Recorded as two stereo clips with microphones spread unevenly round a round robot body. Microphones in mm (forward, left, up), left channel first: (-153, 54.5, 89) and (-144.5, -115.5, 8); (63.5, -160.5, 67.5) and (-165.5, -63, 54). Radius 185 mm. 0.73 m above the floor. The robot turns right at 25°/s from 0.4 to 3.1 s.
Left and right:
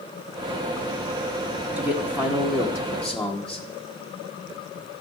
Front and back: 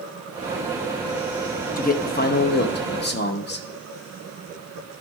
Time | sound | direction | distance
1.8 | a man speaking | 60° right | 1.1 m